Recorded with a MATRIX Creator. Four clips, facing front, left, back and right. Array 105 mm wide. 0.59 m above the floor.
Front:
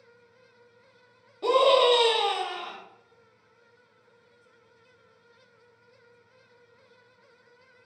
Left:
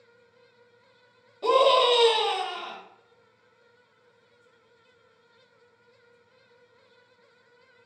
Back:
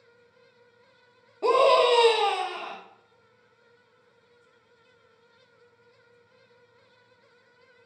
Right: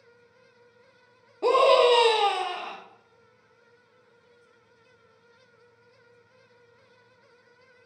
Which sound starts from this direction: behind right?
A scream, at 1.4 s.